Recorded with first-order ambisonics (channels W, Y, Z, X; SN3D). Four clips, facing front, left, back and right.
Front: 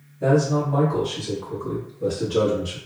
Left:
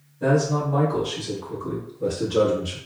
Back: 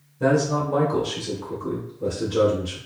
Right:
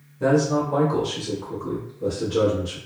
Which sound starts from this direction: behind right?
A man speaking, at 0.2 s.